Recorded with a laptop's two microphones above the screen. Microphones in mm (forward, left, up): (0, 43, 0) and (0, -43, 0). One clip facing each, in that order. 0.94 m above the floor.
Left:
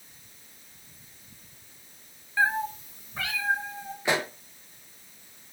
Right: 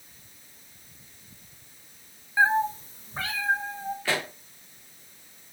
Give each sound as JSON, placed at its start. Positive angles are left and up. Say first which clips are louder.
{"t": 2.4, "sound": "a cat meowing", "louder": "right 4 dB", "side_deg": -20, "distance_m": 0.5}
{"t": 4.0, "sound": "a pop", "louder": "left 4 dB", "side_deg": 20, "distance_m": 0.6}